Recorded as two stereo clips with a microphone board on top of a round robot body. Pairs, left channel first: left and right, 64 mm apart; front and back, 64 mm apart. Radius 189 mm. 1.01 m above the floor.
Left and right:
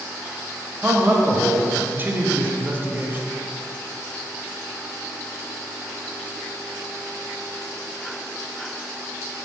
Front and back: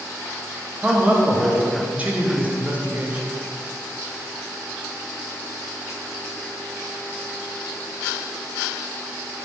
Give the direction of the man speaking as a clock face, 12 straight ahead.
4 o'clock.